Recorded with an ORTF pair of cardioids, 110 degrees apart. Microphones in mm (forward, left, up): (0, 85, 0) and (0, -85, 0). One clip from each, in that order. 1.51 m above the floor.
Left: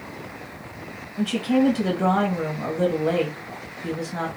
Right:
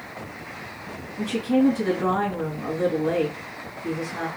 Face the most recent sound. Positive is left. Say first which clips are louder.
# even
turn(degrees=55)